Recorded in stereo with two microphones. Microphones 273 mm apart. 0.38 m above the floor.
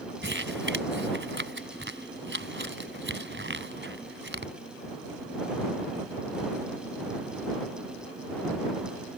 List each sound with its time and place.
0.2 s crumpling: 50° right (ahead or behind)